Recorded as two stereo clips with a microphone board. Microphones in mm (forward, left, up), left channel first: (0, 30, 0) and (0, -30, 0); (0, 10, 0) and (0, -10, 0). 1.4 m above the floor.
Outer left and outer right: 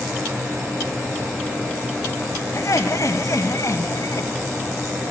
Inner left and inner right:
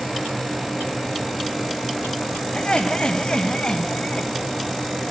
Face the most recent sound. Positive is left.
turn(degrees=55)  # may be behind; listen again after turning